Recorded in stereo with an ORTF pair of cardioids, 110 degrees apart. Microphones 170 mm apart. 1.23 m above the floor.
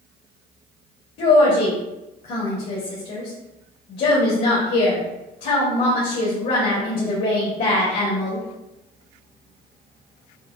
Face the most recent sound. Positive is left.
turn(degrees=60)